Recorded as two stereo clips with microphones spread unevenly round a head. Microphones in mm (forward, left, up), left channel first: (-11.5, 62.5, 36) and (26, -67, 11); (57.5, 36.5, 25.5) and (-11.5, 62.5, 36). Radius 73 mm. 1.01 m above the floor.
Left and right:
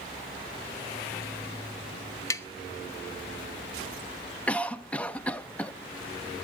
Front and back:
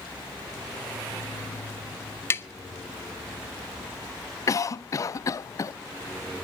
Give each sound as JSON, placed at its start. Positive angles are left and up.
{"t": 2.3, "sound": "tapping", "azimuth_deg": 35, "distance_m": 0.8}
{"t": 4.5, "sound": "a cough", "azimuth_deg": 20, "distance_m": 0.6}